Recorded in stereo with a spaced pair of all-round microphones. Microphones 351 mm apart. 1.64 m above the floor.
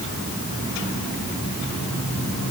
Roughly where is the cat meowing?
No cat meowing in this recording.